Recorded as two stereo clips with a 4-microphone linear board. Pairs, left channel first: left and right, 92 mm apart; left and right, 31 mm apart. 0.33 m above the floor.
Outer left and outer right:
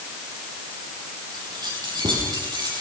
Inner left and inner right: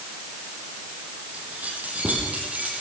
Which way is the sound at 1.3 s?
55° right (ahead or behind).